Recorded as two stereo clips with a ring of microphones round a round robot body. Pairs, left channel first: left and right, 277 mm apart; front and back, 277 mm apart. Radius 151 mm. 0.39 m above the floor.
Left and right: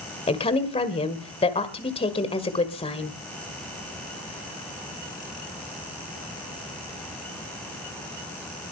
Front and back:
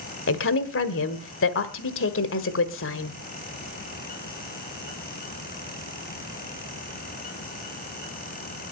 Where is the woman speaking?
25° left, 1.6 m.